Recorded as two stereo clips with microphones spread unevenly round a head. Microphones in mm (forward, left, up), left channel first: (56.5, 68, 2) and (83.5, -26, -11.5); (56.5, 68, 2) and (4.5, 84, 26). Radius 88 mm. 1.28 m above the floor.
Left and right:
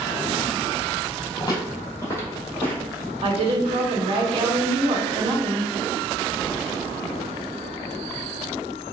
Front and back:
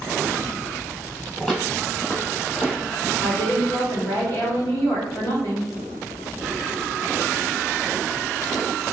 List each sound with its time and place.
1.4 s footsteps: 80° left, 1.9 m; by 3.0 s 40° left, 3.5 m
3.2 s a woman speaking: 55° right, 1.3 m